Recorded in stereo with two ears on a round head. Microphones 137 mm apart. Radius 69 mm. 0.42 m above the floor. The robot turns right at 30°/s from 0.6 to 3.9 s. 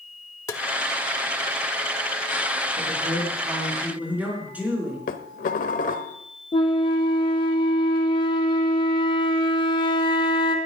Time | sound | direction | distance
0.5 | tapping | 20° left (ahead or behind) | 1.1 m
2.8 | a man speaking | 45° right | 6.5 m
5.1 | dishes clattering | 55° left (ahead or behind) | 1.2 m
6.5 | a flute | 30° left (ahead or behind) | 2.5 m